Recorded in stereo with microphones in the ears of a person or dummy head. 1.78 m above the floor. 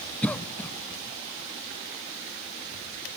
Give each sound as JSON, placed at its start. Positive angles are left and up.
{"t": 0.2, "sound": "a cough", "side_deg": 10, "distance_m": 0.5}